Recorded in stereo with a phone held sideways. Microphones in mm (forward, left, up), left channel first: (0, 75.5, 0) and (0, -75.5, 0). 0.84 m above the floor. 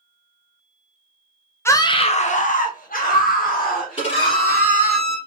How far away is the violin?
About 2 m.